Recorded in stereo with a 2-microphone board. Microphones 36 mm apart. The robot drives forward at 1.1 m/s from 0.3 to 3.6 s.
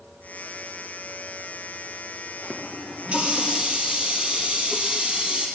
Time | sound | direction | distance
2.4 | a running tap | 45° right (ahead or behind) | 2 m